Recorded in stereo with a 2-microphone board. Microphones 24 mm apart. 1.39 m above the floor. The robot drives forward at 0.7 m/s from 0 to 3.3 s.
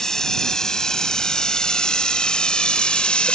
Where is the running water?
20° left (ahead or behind); by 3.4 s 45° left (ahead or behind).